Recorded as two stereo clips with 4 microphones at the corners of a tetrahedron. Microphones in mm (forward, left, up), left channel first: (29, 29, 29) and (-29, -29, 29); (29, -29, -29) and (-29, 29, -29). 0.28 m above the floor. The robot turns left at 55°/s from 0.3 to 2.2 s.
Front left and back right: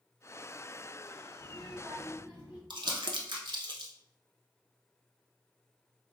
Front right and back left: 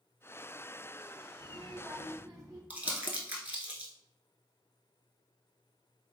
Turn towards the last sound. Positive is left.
turn(degrees=-150)